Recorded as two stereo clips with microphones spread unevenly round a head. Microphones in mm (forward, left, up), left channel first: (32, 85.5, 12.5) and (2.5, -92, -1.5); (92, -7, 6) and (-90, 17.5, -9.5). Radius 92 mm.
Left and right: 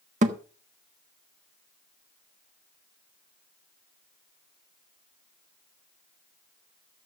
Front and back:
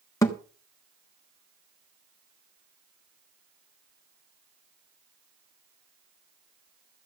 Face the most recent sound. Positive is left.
turn(degrees=-65)